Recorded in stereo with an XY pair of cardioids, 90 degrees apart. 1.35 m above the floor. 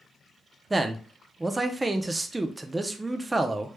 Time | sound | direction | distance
0.7 | a man speaking | 20° right | 0.6 m